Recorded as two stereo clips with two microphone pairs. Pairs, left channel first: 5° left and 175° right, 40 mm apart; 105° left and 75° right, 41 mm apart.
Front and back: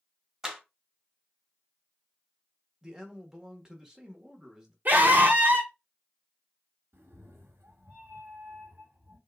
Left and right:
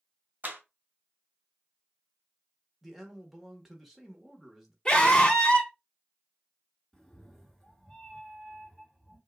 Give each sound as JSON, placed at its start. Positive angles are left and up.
{"t": 0.4, "sound": "a clap", "azimuth_deg": -105, "distance_m": 1.4}
{"t": 2.8, "sound": "a man speaking", "azimuth_deg": -145, "distance_m": 1.1}
{"t": 4.8, "sound": "a scream", "azimuth_deg": 175, "distance_m": 1.1}
{"t": 6.9, "sound": "a cat meowing", "azimuth_deg": -175, "distance_m": 1.1}